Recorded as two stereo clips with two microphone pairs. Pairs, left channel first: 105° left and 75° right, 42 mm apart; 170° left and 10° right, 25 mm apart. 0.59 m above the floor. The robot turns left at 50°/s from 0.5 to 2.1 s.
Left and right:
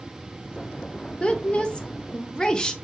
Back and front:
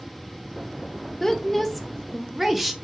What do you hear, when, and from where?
1.2 s a woman speaking: 115° left, 0.7 m; by 2.8 s 70° left, 0.7 m